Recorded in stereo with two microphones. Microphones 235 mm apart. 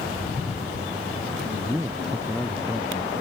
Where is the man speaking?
10° right (ahead or behind); by 3.1 s 20° left (ahead or behind).